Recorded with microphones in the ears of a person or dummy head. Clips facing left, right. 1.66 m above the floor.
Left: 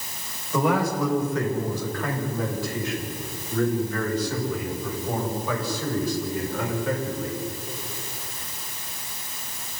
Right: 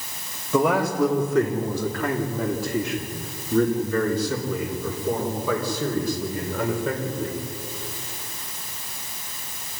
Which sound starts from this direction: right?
A man speaking, at 0.5 s.